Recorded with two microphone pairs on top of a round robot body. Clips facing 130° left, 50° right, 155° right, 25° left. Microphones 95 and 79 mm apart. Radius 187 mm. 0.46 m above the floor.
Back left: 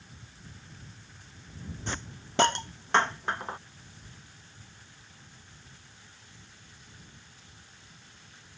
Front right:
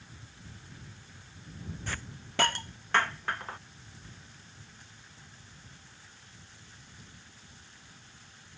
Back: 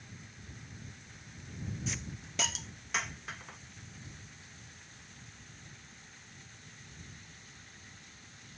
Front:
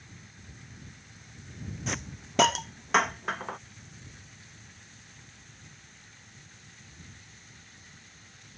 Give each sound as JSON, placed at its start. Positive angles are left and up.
{"t": 1.9, "sound": "a hiss", "azimuth_deg": 60}